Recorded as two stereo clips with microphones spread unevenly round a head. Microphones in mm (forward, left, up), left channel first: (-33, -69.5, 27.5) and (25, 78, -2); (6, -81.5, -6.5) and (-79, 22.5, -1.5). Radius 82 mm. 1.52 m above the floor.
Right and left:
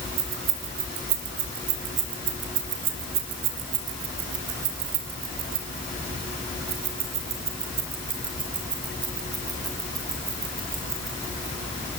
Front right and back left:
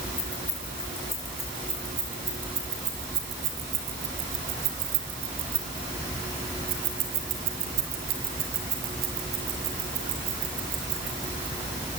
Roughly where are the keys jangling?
Ahead left.